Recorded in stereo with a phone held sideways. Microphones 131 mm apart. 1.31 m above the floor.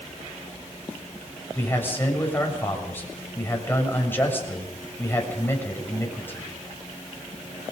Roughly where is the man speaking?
Centre.